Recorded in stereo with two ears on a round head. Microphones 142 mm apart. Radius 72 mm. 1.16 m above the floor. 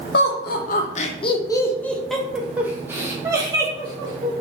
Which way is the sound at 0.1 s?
70° left (ahead or behind).